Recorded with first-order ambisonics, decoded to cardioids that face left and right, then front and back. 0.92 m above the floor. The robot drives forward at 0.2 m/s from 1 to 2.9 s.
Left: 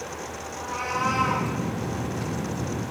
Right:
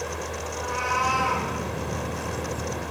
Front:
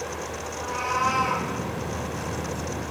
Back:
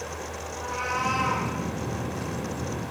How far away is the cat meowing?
About 0.8 m.